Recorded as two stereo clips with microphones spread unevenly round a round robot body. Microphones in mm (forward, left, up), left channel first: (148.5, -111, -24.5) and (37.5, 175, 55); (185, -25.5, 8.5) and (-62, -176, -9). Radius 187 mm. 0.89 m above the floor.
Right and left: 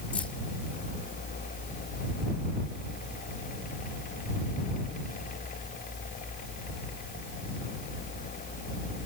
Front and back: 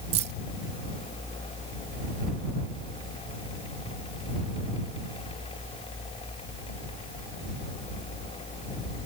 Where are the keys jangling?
155° right.